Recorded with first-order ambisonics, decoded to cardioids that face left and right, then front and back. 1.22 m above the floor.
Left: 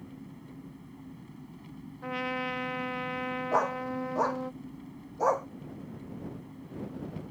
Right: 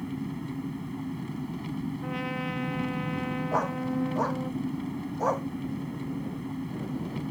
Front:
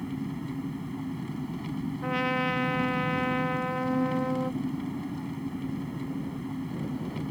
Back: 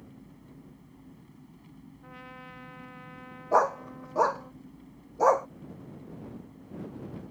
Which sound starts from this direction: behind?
A dog barking, at 3.5 s.